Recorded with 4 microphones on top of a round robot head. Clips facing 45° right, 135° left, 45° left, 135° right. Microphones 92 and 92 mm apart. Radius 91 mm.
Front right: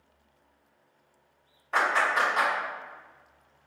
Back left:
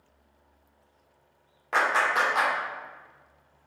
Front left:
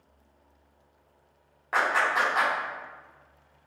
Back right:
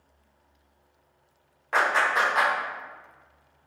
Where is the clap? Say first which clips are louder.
Back left 1 dB, back right 2 dB; 130° left, 1.7 m.